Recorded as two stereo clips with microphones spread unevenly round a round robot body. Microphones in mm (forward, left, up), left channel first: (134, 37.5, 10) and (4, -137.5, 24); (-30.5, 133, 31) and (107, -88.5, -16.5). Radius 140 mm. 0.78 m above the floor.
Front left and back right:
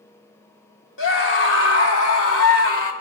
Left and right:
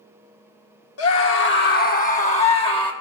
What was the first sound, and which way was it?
A scream, 85° left.